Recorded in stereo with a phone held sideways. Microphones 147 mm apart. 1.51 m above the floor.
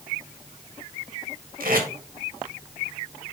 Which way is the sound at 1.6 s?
75° right (ahead or behind).